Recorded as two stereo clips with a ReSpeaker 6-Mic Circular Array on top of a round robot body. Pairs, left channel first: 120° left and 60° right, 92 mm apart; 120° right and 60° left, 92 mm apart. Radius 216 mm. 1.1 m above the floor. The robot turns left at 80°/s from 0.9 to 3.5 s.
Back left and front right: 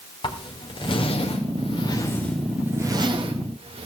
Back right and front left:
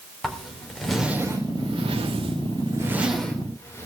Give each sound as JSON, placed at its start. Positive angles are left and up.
{"t": 0.2, "sound": "a zipper", "azimuth_deg": 150, "distance_m": 4.0}